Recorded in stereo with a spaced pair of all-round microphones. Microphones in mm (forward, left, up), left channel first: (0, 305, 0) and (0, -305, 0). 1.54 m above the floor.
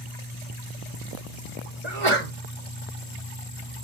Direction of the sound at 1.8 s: 55° right (ahead or behind).